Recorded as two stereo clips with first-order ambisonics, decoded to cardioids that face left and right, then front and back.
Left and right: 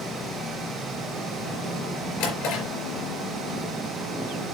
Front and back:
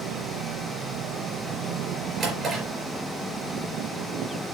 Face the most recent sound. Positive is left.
turn(degrees=115)